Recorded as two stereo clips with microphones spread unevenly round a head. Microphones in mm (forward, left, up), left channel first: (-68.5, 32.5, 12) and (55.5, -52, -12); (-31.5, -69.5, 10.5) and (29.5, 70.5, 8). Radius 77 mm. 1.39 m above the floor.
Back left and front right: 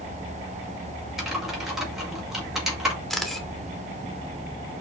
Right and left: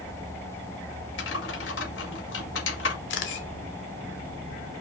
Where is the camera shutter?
130° right, 2.5 m.